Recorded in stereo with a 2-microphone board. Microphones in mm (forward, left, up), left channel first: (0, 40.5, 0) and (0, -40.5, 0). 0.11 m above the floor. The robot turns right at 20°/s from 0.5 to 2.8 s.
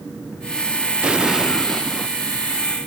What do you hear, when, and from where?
1.0 s an explosion: 15° right (ahead or behind); by 2.1 s 10° left (ahead or behind)